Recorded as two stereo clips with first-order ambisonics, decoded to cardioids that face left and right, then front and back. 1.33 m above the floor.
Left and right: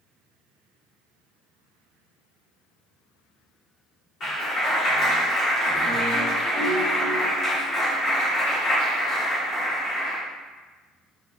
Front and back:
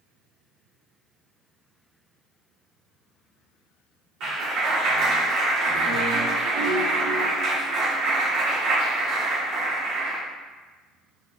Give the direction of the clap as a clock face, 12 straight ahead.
7 o'clock.